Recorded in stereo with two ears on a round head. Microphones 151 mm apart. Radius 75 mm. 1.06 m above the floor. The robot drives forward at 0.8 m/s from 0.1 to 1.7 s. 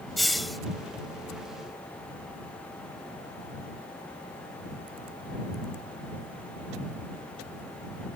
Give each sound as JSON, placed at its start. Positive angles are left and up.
{"t": 0.2, "sound": "a hiss", "side_deg": 0}